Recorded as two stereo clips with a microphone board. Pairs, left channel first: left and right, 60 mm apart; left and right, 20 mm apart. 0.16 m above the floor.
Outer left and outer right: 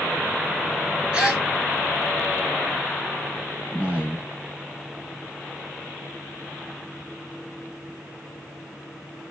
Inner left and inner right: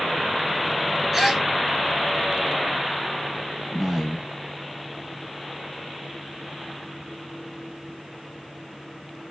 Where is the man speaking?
20° right (ahead or behind), 1.1 m.